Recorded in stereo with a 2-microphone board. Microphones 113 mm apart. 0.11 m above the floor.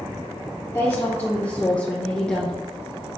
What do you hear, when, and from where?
0.7 s a woman speaking: 25° left (ahead or behind), 2 m; by 2.6 s 5° left (ahead or behind), 1.2 m